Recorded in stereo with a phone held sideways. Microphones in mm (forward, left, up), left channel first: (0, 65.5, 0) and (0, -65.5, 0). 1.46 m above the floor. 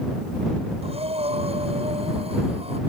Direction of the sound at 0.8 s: 50° right (ahead or behind).